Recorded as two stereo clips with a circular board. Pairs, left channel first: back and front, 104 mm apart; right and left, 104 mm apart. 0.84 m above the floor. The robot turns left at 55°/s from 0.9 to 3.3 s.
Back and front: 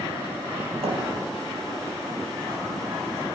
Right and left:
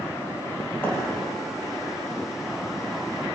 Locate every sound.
0.8 s a thud: 20° right, 5 m; by 1.0 s 25° right, 5 m